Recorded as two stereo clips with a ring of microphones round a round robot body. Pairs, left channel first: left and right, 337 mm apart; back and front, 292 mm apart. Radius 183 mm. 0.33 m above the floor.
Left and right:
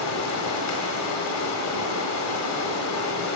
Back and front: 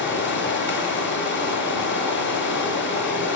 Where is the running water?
130° left, 1.3 m.